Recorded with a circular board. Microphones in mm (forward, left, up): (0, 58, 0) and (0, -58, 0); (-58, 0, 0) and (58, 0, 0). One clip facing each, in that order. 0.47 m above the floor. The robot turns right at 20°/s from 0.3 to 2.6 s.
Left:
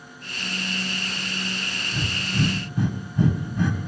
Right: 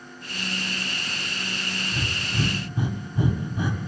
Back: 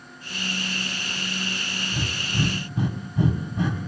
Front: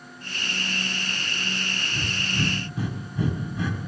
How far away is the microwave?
No microwave in this recording.